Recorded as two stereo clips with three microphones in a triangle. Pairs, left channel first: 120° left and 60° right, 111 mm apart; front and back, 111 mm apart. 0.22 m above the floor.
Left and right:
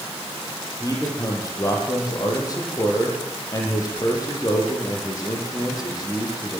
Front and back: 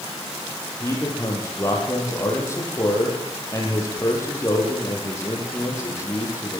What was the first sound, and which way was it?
A man speaking, 65° left.